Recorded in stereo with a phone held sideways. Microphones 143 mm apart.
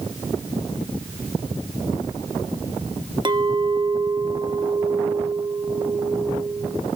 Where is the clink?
35° right (ahead or behind), 0.9 m.